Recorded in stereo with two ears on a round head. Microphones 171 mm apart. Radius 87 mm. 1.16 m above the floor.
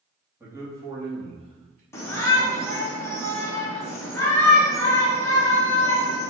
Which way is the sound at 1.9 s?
15° left (ahead or behind).